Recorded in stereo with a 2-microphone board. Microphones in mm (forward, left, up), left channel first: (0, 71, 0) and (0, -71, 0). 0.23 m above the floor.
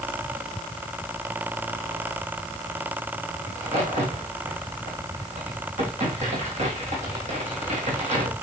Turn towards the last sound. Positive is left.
turn(degrees=-55)  # may be behind; listen again after turning